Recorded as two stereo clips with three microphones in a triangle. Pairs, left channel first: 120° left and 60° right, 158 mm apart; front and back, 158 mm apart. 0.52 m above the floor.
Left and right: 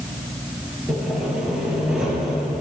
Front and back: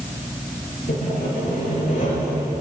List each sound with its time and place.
0.9 s sawing: 25° left, 6.5 m